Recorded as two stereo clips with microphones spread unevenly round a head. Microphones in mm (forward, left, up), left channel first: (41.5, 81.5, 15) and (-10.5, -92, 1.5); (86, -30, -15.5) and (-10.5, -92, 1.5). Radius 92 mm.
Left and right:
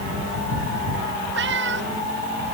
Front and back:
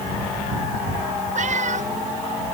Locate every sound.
1.4 s a cat meowing: 140° right